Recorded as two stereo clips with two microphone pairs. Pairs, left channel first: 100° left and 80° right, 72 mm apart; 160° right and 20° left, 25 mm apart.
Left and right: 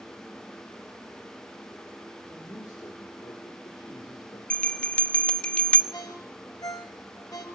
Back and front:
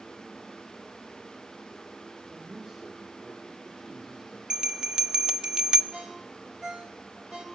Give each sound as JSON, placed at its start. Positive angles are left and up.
{"t": 2.3, "sound": "a man speaking", "azimuth_deg": 70, "distance_m": 2.5}
{"t": 4.5, "sound": "a bell", "azimuth_deg": 35, "distance_m": 0.7}
{"t": 5.9, "sound": "a ringtone", "azimuth_deg": 70, "distance_m": 3.5}